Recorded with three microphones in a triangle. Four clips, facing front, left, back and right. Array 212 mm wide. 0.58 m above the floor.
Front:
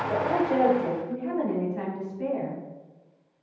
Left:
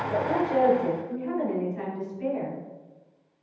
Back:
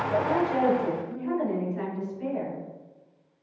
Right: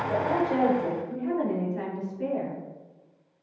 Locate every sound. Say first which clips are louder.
0.1 s a woman speaking: left 1 dB, front 1 dB; 35° right, 3.5 m; by 2.6 s 20° right, 5.5 m